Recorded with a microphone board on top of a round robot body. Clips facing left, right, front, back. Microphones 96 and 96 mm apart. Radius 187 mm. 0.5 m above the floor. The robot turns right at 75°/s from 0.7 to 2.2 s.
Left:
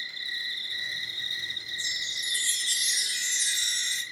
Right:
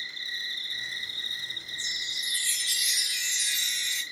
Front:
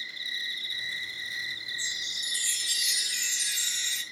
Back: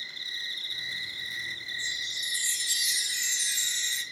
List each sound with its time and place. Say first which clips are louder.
0.0 s an insect: left 1 dB, front 2 dB; 140° right, 2 m; by 4.1 s 25° right, 2 m
1.8 s a chime: left 1 dB, back 1 dB; straight ahead, 1.5 m; by 4.0 s 30° left, 1.5 m